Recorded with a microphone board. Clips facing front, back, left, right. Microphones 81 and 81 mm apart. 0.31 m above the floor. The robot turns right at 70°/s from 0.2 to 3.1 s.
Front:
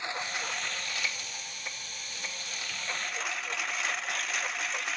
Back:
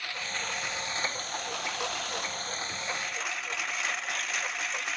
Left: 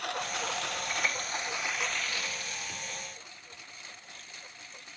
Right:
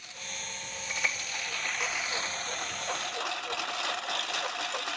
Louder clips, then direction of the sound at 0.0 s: Front 1 dB, left 10 dB; 70° left.